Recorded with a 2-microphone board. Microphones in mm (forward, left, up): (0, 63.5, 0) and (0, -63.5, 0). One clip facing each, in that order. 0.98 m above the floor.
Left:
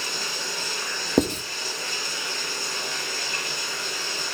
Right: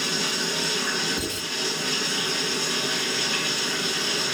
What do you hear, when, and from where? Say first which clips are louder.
0.0 s running water: right 5 dB; 80° right, 3 m
1.2 s writing: left 10 dB; 70° left (ahead or behind), 1.7 m